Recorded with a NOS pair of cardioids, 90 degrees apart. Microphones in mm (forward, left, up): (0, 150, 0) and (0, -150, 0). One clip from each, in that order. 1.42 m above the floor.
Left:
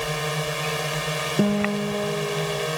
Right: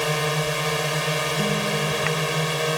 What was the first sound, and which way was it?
A drone, 60° right.